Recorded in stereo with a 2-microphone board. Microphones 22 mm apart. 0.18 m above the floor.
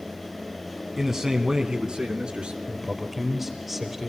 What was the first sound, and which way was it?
A man speaking, 10° right (ahead or behind).